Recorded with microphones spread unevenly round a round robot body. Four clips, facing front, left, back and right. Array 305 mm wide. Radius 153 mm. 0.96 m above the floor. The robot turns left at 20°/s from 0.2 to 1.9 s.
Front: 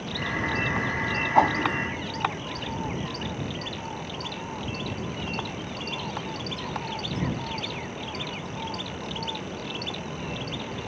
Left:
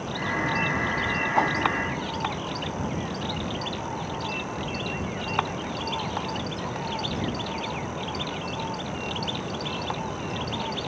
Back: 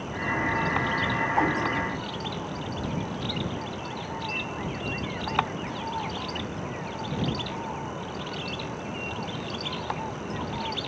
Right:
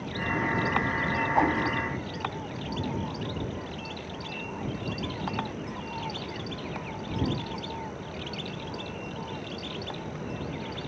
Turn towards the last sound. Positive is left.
turn(degrees=5)